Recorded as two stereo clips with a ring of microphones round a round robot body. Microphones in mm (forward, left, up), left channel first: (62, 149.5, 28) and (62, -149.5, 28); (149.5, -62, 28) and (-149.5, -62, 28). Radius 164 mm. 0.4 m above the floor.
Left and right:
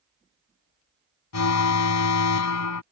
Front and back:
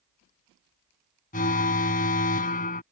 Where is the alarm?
65° left.